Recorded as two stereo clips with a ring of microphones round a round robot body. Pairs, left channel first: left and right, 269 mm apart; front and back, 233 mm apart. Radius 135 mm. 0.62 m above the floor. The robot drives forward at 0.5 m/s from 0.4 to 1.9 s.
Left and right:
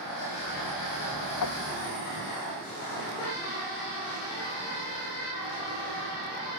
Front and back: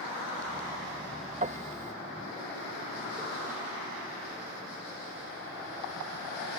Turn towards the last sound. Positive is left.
turn(degrees=120)